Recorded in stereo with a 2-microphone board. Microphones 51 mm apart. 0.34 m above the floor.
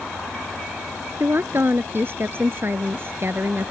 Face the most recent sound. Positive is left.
turn(degrees=-45)  # may be behind; listen again after turning